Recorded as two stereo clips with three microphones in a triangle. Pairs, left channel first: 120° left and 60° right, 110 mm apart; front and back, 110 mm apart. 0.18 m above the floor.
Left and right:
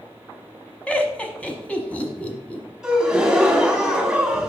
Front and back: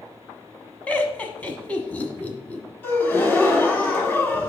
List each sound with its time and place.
0.9 s laughter: 60° left, 1.0 m
2.8 s a gasp: 10° left, 1.1 m